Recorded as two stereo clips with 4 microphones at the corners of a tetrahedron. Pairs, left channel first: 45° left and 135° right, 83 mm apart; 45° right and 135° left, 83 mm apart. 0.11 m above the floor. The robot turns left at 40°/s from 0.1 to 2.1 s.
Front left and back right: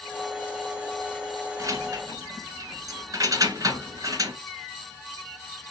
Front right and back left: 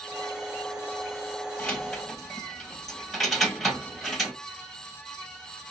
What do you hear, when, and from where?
1.6 s keys jangling: 115° right, 1.4 m; by 4.4 s 135° right, 1.4 m